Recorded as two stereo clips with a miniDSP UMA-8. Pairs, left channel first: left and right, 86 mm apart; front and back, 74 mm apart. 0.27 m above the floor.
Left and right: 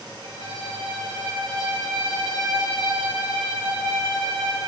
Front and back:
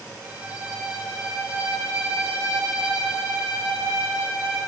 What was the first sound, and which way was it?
A violin, 110° left.